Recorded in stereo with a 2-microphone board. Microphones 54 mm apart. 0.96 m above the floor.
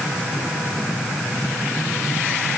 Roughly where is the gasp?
I don't hear a gasp.